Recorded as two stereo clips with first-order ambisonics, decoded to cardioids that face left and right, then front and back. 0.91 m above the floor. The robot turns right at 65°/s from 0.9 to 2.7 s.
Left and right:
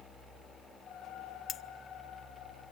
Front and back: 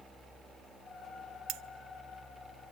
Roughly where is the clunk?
No clunk in this recording.